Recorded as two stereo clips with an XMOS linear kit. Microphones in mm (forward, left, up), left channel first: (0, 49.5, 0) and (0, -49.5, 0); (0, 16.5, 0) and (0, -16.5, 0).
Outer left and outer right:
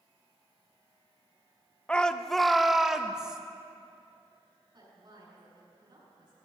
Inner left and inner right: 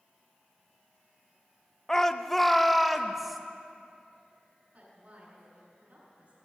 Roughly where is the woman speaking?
Right.